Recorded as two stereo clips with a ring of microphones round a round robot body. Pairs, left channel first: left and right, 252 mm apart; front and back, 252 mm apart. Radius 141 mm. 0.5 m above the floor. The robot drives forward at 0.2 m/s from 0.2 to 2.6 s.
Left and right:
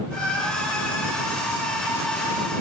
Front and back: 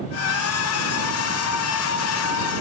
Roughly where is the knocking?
No knocking in this recording.